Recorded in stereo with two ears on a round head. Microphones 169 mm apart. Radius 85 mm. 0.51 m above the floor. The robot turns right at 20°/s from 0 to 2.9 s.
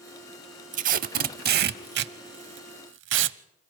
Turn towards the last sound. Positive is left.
turn(degrees=-65)  # may be behind; listen again after turning